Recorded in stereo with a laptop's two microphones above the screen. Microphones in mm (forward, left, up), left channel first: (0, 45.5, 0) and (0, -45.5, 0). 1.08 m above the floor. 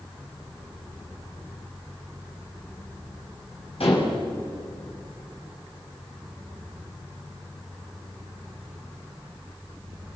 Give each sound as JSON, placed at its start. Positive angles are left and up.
{"t": 3.8, "sound": "dishes clattering", "side_deg": 80, "distance_m": 5.5}